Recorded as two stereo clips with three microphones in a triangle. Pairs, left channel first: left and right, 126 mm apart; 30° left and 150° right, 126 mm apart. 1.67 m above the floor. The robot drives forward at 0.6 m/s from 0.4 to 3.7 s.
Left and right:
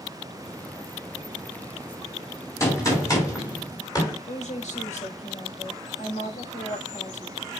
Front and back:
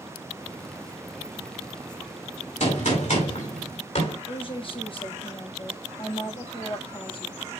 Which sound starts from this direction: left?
A woman speaking, at 4.3 s.